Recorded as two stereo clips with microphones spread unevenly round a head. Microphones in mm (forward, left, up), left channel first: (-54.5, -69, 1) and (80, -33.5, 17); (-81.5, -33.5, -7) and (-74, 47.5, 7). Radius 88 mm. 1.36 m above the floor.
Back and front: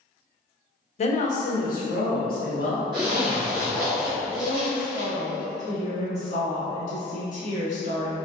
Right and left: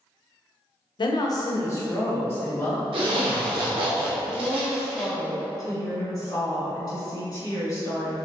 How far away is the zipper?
About 0.7 m.